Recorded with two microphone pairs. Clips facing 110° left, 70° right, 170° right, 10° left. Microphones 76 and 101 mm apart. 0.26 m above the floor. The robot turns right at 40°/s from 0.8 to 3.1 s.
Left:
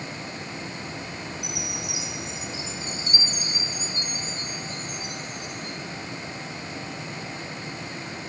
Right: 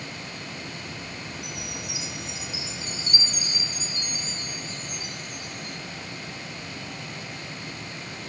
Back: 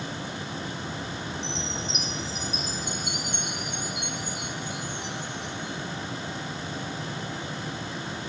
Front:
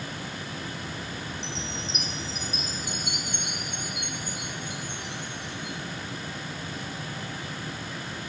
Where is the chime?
175° left, 1.9 m; by 5.8 s 120° right, 1.9 m.